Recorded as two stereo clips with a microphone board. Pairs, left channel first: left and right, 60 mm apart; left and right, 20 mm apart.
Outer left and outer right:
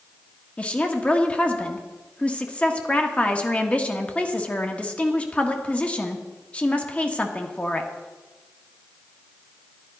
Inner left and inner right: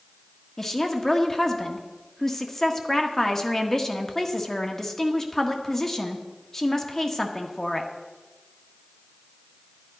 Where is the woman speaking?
25° left (ahead or behind), 1.4 m.